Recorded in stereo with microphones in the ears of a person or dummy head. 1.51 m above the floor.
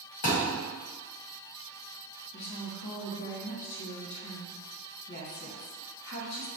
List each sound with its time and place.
0.2 s a thud: 45° left (ahead or behind), 1.5 m
2.3 s a woman speaking: 60° left (ahead or behind), 0.6 m